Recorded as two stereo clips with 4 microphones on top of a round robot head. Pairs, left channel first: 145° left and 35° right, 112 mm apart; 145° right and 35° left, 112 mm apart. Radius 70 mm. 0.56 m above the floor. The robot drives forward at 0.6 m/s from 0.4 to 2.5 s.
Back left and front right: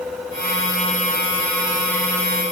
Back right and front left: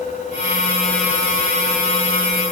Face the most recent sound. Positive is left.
No sound to turn to.